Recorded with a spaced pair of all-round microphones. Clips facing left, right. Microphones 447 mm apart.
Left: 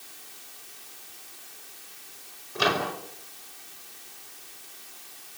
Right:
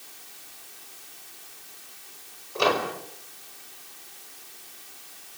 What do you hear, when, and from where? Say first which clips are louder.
2.5 s a microwave: right 3 dB; 35° left (ahead or behind), 5 m